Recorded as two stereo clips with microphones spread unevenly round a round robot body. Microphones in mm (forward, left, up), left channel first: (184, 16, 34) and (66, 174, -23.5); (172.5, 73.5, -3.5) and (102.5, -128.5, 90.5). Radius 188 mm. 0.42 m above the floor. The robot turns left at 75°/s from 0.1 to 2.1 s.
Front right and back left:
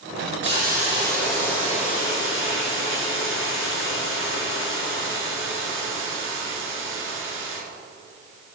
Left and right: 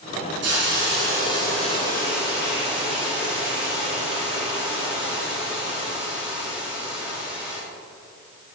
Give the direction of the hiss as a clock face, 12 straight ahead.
4 o'clock.